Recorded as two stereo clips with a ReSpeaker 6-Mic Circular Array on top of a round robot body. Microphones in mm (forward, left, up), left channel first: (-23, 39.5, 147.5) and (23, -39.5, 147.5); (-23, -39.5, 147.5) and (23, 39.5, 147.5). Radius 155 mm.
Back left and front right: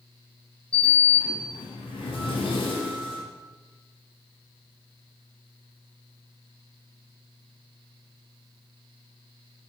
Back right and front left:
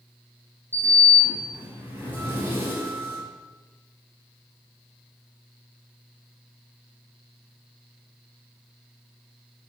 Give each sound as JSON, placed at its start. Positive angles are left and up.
{"t": 0.7, "sound": "a sliding door", "azimuth_deg": 125, "distance_m": 5.5}